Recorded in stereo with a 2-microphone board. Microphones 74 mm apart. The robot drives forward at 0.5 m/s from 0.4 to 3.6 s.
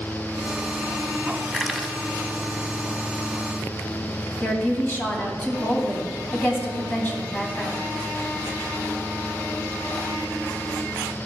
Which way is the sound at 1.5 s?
5° left (ahead or behind).